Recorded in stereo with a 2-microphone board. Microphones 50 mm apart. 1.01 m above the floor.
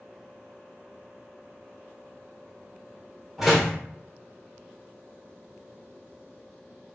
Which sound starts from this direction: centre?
A door slam, at 3.4 s.